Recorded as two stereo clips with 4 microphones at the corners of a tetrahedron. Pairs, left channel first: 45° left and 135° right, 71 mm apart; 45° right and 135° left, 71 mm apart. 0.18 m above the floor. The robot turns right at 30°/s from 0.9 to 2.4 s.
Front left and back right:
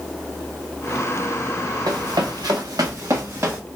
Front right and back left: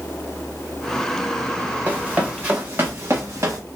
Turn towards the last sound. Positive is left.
turn(degrees=175)